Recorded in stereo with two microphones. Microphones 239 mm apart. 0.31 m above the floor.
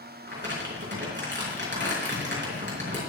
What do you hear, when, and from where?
0.3 s crumpling: 50° right (ahead or behind), 4.5 m